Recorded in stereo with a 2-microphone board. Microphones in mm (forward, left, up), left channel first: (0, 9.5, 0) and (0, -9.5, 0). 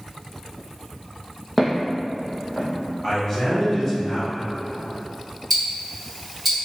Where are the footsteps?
10° left (ahead or behind), 0.8 m; by 2.7 s 40° left (ahead or behind), 1.6 m.